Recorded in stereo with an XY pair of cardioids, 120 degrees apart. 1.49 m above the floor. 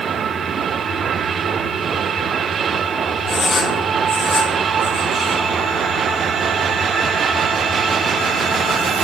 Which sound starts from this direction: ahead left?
Writing, at 3.3 s.